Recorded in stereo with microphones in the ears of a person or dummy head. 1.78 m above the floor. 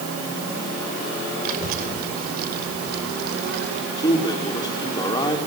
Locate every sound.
1.4 s a child speaking: 45° right (ahead or behind), 5.5 m; by 3.8 s 60° right (ahead or behind), 4.5 m
4.0 s a man speaking: 20° left (ahead or behind), 4.5 m